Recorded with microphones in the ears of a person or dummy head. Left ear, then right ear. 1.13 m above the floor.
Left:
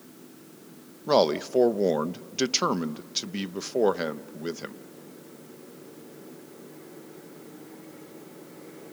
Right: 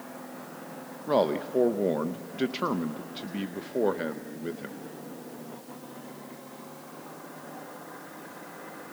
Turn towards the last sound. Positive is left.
turn(degrees=80)